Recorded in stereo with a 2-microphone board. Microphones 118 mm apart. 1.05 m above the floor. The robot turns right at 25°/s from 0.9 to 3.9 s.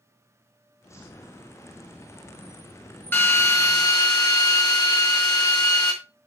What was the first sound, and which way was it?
A drill, 20° left (ahead or behind).